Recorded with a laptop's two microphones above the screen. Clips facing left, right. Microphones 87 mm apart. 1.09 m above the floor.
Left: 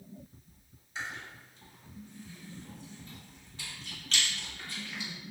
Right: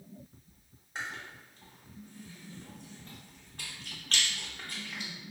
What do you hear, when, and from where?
0.9 s chewing: 55° right (ahead or behind), 0.9 m